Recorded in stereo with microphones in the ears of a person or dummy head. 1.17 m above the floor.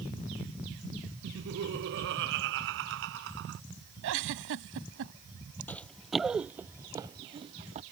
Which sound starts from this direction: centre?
Running footsteps, at 5.7 s.